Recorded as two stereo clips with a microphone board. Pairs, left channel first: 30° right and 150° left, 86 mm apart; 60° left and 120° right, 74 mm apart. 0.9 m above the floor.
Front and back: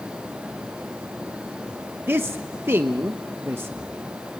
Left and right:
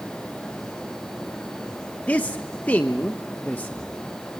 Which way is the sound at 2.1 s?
110° left.